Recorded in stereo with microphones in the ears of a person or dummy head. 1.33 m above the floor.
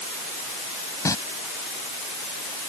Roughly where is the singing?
Centre.